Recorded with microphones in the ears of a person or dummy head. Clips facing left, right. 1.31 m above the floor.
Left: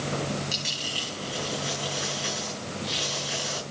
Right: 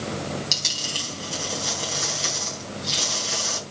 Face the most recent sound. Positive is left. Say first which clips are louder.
# right 1 dB
turn(degrees=-45)  # may be behind; listen again after turning